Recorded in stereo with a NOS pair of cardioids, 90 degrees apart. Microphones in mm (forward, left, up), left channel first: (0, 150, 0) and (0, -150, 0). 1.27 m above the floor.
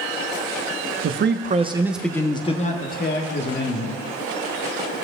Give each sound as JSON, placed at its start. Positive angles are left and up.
{"t": 1.0, "sound": "a man speaking", "azimuth_deg": -50, "distance_m": 1.0}